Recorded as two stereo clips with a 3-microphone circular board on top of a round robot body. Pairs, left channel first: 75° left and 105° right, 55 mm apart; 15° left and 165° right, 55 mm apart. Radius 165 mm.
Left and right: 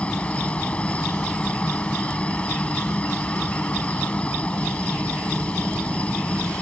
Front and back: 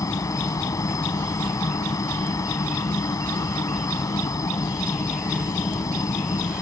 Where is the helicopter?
10° left.